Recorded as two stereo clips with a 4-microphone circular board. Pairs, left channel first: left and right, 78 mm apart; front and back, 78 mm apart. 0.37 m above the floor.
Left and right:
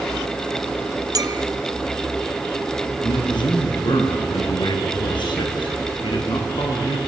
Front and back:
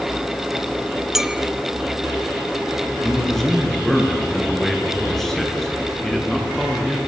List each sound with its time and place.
1.1 s a clink: 95° right, 1.1 m
3.0 s a man speaking: 85° left, 6.5 m